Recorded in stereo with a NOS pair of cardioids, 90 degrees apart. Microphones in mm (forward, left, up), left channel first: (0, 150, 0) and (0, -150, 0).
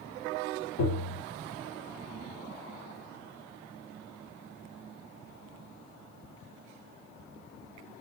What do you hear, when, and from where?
0.8 s tapping: 50° left, 2.5 m